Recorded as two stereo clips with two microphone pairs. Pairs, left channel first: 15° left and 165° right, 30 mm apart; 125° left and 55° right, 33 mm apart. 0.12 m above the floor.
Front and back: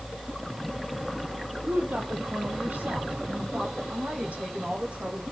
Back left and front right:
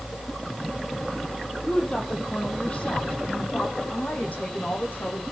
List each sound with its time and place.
1.6 s a woman speaking: 170° right, 4.5 m; by 5.2 s 155° left, 7 m